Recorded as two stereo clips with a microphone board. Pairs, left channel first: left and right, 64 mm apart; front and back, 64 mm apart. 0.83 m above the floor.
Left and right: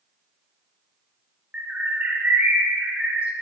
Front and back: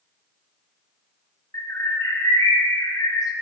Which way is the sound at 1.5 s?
20° right.